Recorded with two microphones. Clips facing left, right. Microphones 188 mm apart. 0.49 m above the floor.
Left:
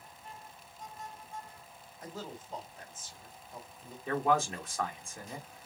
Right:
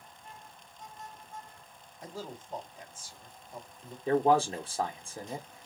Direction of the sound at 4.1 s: 30° right (ahead or behind).